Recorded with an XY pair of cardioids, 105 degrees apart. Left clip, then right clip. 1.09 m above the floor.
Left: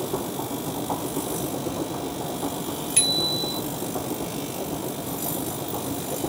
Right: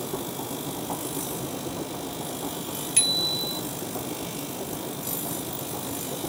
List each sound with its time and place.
0.0 s a machine running: 30° left
3.0 s a bicycle bell: 5° left